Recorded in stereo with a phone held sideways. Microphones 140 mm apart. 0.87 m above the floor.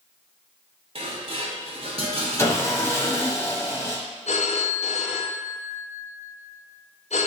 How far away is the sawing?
About 0.9 m.